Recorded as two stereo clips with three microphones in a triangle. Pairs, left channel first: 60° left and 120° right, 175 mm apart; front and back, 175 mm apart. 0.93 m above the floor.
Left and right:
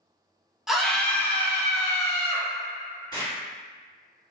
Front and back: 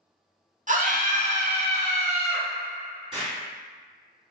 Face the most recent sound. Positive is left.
turn(degrees=120)